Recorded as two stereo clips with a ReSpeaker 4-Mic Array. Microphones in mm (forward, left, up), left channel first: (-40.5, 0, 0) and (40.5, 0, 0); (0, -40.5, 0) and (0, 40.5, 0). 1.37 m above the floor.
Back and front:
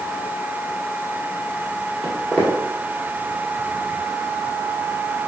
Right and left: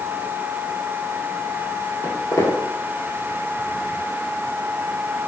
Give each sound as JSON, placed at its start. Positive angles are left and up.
{"t": 2.0, "sound": "footsteps", "azimuth_deg": -120, "distance_m": 1.9}